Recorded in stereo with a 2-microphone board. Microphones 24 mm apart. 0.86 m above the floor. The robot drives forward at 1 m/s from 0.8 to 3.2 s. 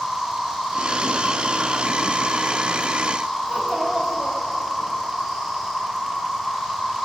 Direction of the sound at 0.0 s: 25° right (ahead or behind).